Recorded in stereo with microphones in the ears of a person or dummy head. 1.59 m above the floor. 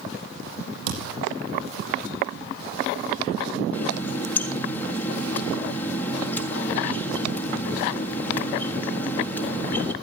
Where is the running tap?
10° left (ahead or behind), 1.7 m.